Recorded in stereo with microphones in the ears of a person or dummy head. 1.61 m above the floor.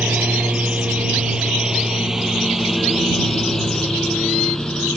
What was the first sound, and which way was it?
A lawn mower, 10° right (ahead or behind).